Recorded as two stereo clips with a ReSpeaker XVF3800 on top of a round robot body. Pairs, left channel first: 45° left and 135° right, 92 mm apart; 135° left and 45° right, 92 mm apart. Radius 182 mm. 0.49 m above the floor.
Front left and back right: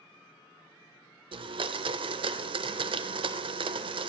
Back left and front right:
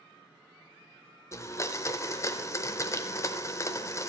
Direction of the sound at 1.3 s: 165° right.